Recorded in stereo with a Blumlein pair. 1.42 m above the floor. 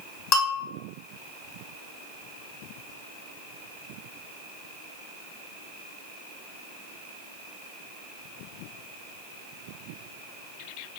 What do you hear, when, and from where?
0.3 s a bell: 35° left, 2.5 m